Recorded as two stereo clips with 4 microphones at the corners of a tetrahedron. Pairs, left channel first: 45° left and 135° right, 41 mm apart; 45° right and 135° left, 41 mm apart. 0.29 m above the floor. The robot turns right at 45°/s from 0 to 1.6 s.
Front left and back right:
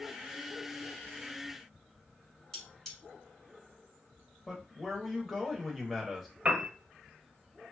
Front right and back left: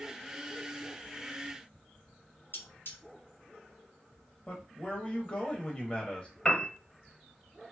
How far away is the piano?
About 0.7 m.